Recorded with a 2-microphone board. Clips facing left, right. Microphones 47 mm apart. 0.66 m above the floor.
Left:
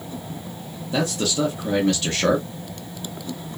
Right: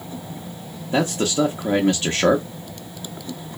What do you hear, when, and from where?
0.9 s a man speaking: 35° right (ahead or behind), 0.5 m